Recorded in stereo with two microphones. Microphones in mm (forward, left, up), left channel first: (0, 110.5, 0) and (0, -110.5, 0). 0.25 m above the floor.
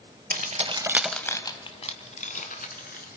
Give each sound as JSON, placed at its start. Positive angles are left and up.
{"t": 0.3, "sound": "keys jangling", "side_deg": -40, "distance_m": 0.8}